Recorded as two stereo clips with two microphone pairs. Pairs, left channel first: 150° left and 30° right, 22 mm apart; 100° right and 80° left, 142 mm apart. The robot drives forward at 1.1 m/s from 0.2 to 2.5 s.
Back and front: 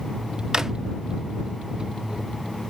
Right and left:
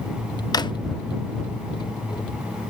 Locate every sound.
0.5 s a drawer: 50° right, 0.6 m; by 0.7 s 85° right, 0.5 m